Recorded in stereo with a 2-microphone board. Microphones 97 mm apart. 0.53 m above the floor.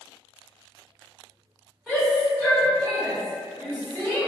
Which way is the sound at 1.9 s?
5° left (ahead or behind).